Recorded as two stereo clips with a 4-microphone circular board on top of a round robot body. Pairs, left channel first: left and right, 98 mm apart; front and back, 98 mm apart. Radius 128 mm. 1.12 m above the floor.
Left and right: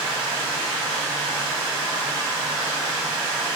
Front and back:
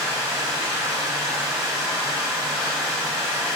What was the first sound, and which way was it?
Running water, 125° right.